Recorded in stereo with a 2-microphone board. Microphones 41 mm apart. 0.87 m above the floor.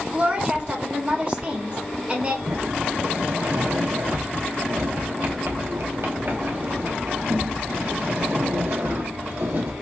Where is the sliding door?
65° right (ahead or behind), 1.1 m.